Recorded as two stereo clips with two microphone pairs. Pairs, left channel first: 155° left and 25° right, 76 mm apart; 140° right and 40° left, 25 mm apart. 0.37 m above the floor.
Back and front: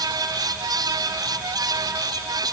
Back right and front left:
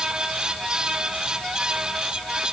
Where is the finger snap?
No finger snap in this recording.